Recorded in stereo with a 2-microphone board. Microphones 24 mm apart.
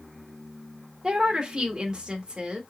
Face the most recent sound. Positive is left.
turn(degrees=-35)  # may be behind; listen again after turning